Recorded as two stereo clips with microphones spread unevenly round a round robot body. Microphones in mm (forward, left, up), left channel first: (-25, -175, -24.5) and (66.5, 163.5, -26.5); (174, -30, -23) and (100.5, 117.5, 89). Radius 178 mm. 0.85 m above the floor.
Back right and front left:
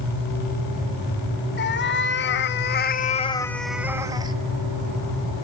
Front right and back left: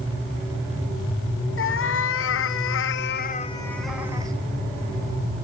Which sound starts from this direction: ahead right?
A cat meowing, at 1.6 s.